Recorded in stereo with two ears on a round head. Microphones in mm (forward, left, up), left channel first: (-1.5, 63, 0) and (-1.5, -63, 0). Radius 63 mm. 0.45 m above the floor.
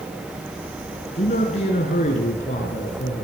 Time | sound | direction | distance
1.1 | a man speaking | 50° left (ahead or behind) | 5 m